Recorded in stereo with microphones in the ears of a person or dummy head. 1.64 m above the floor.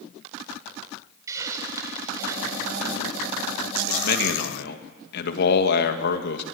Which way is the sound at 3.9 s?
55° left (ahead or behind).